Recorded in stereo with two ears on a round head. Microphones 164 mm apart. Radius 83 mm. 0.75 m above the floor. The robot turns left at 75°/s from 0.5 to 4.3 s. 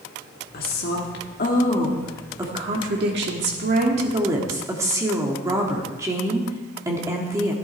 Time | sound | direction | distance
0.5 | a woman speaking | 120° left | 1.6 m